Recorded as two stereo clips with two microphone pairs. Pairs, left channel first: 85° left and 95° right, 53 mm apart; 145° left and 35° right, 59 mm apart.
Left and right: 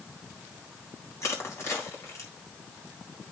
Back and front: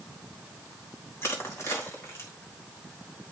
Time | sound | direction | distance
1.2 | crushing | 105° left | 3 m